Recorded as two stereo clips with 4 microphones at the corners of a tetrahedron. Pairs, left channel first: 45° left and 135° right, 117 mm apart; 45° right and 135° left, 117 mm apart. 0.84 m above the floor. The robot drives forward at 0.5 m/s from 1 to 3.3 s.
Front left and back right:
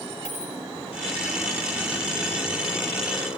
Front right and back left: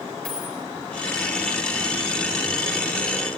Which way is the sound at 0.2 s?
35° left.